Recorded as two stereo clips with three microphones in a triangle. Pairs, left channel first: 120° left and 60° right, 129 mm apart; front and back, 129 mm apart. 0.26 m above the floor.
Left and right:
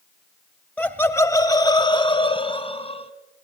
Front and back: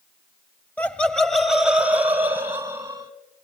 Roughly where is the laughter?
Ahead left.